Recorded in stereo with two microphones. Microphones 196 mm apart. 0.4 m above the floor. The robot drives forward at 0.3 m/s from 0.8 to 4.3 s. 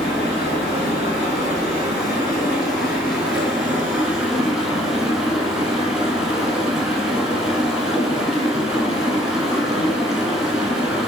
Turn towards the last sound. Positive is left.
turn(degrees=-5)  # may be behind; listen again after turning